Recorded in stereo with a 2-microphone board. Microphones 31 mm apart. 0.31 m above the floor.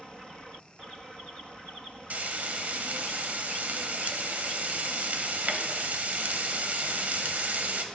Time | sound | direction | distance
2.1 | frying | 55° right (ahead or behind) | 0.6 m